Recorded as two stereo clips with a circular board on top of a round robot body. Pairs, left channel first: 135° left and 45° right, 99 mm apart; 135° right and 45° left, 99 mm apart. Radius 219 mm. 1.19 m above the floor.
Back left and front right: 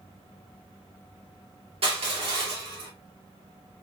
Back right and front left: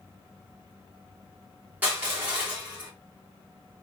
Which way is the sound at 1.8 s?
25° right.